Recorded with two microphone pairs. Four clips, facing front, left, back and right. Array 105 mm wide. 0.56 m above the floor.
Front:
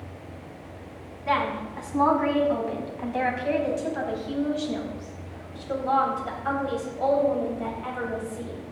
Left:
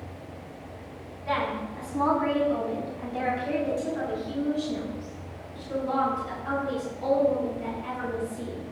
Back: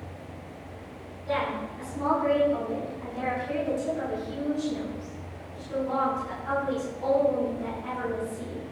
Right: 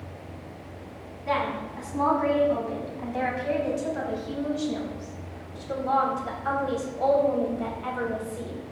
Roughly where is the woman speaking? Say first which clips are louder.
Right 1 dB, front 3 dB; ahead.